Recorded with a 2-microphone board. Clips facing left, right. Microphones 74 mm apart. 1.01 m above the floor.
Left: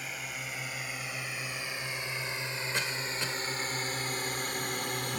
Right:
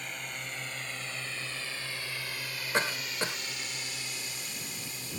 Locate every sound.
0.0 s a drone: 5° left (ahead or behind); by 5.2 s 70° left (ahead or behind)
2.7 s a cough: 40° right (ahead or behind)